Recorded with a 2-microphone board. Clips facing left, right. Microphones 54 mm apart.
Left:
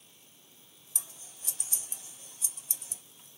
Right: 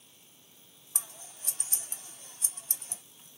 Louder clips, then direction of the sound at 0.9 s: Right 3 dB; 50° right (ahead or behind).